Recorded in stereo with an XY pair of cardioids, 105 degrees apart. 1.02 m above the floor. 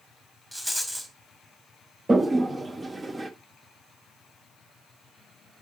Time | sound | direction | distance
0.5 | a rattle | 5° right | 1.8 m
2.1 | a toilet flushing | 25° right | 0.8 m